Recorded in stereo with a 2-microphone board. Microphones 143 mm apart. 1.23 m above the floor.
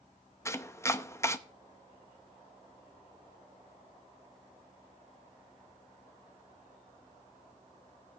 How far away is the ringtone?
No ringtone in this recording.